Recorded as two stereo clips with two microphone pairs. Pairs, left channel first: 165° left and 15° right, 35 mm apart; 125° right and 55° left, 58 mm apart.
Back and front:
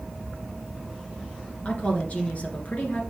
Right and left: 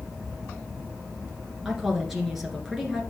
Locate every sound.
1.6 s a woman speaking: 140° left, 1.8 m